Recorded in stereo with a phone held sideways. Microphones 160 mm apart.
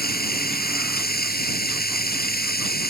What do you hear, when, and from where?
0.0 s running water: 70° left (ahead or behind)